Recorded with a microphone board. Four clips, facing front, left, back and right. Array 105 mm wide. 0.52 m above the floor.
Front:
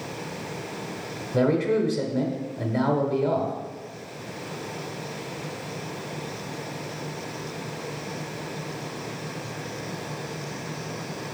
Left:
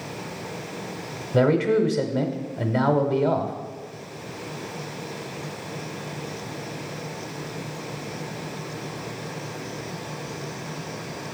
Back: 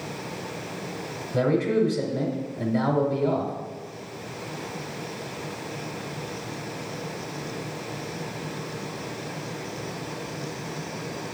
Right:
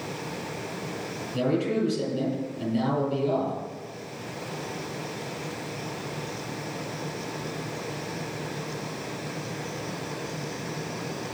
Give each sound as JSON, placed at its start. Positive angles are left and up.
{"t": 1.3, "sound": "a man speaking", "azimuth_deg": 85, "distance_m": 1.3}